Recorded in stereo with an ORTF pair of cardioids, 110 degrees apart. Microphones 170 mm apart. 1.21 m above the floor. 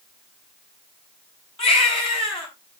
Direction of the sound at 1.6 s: 35° left.